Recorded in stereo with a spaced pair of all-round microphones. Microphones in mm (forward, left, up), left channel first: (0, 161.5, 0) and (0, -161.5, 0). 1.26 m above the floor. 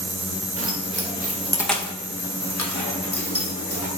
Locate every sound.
0.6 s keys jangling: 45° right (ahead or behind), 1.1 m; by 3.9 s 75° left (ahead or behind), 1.6 m